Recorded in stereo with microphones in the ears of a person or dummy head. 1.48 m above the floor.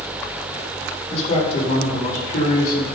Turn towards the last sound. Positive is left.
turn(degrees=70)  # may be behind; listen again after turning